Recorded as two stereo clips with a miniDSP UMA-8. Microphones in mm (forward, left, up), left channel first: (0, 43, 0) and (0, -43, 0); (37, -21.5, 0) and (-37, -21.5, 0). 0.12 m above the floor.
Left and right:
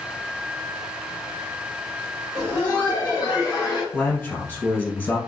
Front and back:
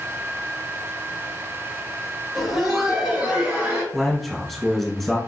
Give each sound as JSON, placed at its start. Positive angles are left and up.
{"t": 2.4, "sound": "laughter", "azimuth_deg": -95, "distance_m": 1.6}
{"t": 3.9, "sound": "a man speaking", "azimuth_deg": 85, "distance_m": 1.1}